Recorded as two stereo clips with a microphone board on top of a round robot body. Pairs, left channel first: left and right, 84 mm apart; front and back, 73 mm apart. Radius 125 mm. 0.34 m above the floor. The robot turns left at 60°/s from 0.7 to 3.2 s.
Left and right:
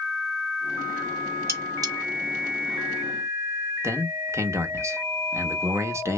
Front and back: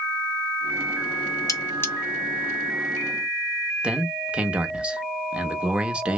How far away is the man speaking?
About 1.2 m.